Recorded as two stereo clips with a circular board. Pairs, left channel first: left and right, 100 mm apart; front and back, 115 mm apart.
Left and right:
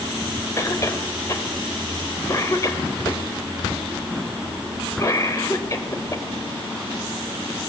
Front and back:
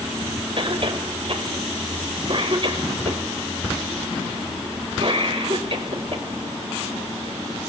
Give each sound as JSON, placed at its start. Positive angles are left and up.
{"t": 0.6, "sound": "a cough", "azimuth_deg": 145, "distance_m": 3.0}